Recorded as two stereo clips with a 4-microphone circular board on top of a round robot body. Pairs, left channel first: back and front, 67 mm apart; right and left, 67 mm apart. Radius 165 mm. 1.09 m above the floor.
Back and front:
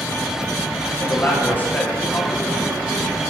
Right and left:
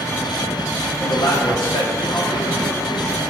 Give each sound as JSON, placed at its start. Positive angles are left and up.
{"t": 1.0, "sound": "a man speaking", "azimuth_deg": -115, "distance_m": 2.0}